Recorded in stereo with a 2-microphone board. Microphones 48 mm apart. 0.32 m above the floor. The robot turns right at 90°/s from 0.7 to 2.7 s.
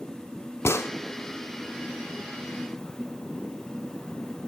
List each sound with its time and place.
0.7 s a gunshot: 70° left (ahead or behind), 0.7 m; by 0.9 s 85° left, 0.7 m